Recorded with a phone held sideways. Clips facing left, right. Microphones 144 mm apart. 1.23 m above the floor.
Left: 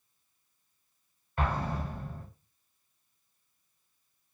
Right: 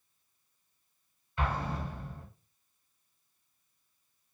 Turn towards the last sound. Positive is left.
turn(degrees=50)  # may be behind; listen again after turning